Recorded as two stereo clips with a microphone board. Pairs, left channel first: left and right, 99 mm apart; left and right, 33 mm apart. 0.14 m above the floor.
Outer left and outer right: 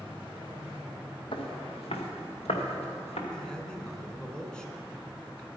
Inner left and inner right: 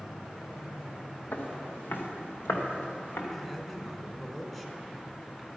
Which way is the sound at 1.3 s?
60° left (ahead or behind).